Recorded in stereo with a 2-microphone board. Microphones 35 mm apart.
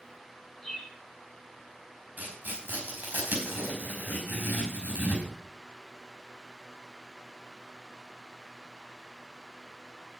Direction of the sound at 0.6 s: 5° left (ahead or behind).